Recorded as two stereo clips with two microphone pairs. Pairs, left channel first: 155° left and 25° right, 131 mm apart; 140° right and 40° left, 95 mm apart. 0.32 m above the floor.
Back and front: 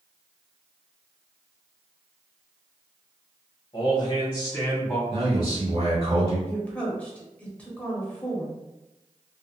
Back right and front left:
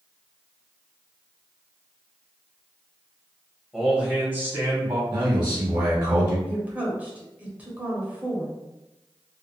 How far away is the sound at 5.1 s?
About 1.1 m.